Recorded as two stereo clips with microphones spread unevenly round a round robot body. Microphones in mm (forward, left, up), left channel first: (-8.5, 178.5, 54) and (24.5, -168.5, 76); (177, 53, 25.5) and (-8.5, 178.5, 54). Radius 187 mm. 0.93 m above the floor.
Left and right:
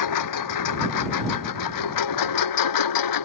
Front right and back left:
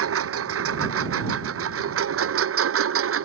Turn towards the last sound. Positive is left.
turn(degrees=130)